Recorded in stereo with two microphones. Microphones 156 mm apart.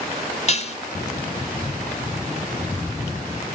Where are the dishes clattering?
45° left (ahead or behind), 0.8 m.